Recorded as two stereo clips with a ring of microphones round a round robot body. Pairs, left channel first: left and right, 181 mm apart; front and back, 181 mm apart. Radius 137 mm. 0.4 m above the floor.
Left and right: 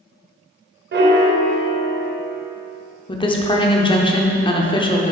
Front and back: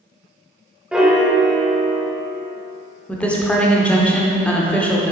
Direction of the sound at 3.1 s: 75° left.